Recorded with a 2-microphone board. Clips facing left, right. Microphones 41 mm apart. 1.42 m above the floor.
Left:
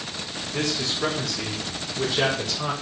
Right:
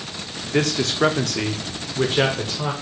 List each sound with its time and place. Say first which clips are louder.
0.5 s a man speaking: right 6 dB; 55° right (ahead or behind), 0.8 m; by 2.7 s 30° right (ahead or behind), 1.2 m